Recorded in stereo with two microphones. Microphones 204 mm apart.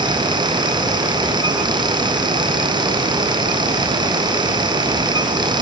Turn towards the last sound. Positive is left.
No sound to turn to.